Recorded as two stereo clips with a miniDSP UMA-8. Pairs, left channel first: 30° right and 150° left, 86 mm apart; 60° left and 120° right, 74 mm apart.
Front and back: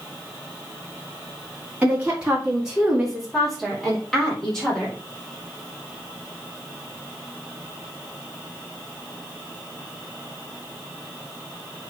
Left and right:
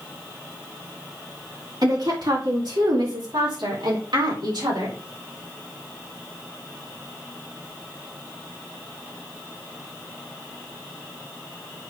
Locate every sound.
1.8 s a woman speaking: 135° right, 2.5 m; by 5.0 s 110° right, 4 m